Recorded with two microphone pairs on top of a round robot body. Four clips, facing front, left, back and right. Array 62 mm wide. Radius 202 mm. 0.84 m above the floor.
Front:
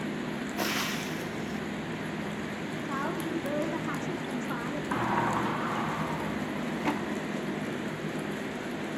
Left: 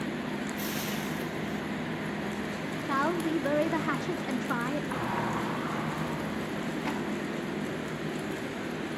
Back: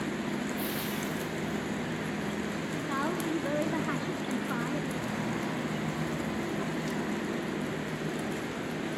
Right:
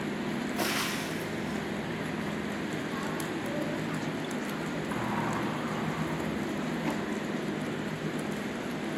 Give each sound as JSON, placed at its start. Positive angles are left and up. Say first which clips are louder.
{"t": 0.6, "sound": "frying", "louder": "right 2 dB, front 2 dB", "azimuth_deg": -50, "distance_m": 1.0}
{"t": 2.9, "sound": "a woman speaking", "louder": "left 5 dB, back 1 dB", "azimuth_deg": 90, "distance_m": 2.5}
{"t": 4.9, "sound": "a sliding door", "louder": "even, front 6 dB", "azimuth_deg": 10, "distance_m": 2.0}